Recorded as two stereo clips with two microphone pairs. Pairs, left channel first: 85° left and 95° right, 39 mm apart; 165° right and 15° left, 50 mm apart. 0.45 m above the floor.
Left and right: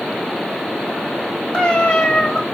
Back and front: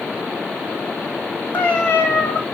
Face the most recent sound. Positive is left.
turn(degrees=140)